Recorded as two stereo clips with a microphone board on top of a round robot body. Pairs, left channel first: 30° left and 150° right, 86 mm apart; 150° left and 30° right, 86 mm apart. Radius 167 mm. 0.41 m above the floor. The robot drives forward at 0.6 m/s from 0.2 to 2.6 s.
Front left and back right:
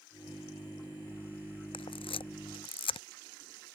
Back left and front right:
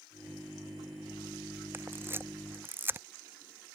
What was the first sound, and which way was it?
A camera shutter, 35° left.